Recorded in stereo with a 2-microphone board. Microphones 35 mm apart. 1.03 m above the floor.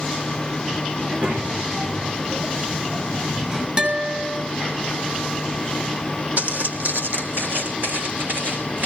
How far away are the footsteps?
About 3 m.